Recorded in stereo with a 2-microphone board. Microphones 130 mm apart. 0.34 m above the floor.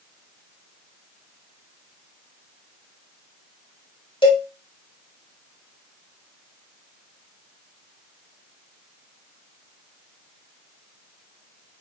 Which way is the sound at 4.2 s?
40° left (ahead or behind).